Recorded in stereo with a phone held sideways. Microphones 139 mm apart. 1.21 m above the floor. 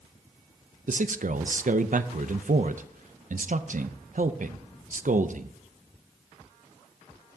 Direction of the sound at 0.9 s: 65° right (ahead or behind).